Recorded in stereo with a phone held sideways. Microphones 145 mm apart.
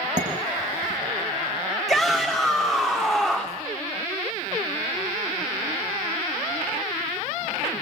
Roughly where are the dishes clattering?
Right.